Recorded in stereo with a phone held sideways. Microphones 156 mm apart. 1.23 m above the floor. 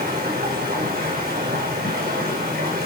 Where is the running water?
80° right, 4.5 m.